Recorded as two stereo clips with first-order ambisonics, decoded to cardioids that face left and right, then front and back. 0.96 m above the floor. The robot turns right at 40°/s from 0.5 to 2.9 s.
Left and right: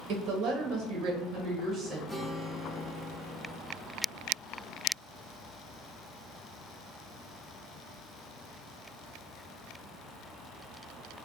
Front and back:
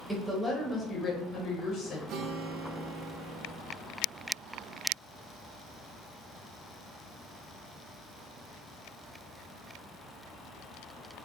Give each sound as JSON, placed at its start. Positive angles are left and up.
{"t": 0.1, "sound": "a woman speaking", "azimuth_deg": -90, "distance_m": 1.1}
{"t": 2.1, "sound": "a guitar", "azimuth_deg": 175, "distance_m": 0.5}